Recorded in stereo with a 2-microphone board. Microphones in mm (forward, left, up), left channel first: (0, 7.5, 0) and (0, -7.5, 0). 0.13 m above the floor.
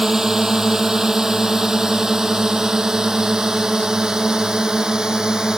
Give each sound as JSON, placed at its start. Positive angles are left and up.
{"t": 0.0, "sound": "a drone", "side_deg": -30}